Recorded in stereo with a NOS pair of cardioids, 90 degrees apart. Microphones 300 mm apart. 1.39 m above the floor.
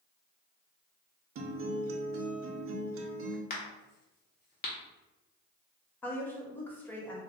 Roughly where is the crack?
Ahead left.